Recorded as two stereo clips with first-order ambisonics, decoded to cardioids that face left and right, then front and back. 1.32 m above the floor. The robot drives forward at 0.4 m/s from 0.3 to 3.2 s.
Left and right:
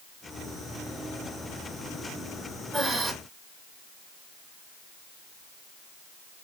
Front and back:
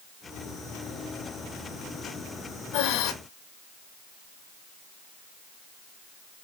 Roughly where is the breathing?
Ahead.